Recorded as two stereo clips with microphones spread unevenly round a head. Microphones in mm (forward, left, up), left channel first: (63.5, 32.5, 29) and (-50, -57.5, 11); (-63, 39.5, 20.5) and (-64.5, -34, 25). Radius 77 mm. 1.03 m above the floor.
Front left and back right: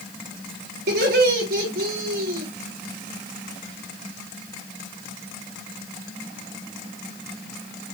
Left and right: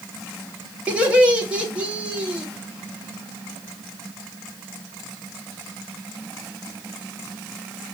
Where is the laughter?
165° right, 2 m.